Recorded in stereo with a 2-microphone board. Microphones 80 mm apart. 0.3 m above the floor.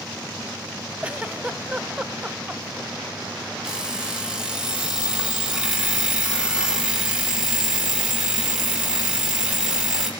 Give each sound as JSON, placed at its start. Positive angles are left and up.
{"t": 1.0, "sound": "a giggle", "side_deg": -15, "distance_m": 0.9}
{"t": 3.6, "sound": "an alarm clock", "side_deg": -10, "distance_m": 5.0}